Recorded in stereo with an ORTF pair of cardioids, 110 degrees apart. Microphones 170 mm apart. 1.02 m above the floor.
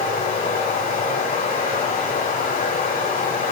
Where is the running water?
60° left, 7.5 m.